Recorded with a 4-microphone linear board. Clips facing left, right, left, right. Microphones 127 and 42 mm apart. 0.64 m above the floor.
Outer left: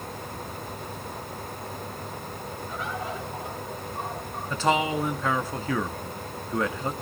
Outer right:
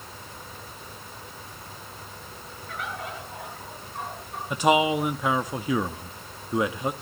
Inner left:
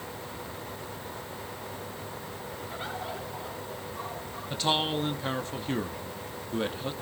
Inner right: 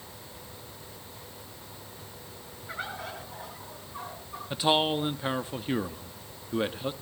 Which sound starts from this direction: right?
A bird, at 2.7 s.